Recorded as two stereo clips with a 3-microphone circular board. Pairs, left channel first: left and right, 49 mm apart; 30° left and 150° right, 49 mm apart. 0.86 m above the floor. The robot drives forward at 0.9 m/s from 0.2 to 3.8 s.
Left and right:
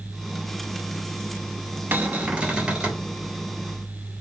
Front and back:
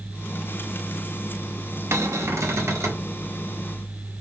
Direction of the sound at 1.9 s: 135° right.